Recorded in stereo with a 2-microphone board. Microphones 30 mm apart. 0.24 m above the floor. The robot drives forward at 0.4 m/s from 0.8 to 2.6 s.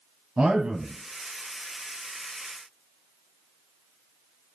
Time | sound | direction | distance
0.4 | a man speaking | 35° right (ahead or behind) | 1.5 m